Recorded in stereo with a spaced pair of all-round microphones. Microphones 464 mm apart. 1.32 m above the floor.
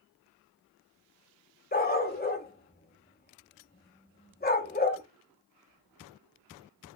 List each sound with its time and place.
1.7 s a dog barking: 20° left (ahead or behind), 0.8 m